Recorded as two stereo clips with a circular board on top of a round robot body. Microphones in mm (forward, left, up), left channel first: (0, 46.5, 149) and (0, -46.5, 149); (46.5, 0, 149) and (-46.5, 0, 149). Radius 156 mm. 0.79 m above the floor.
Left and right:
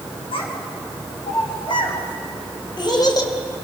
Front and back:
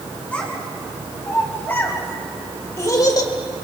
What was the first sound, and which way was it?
A child speaking, 75° left.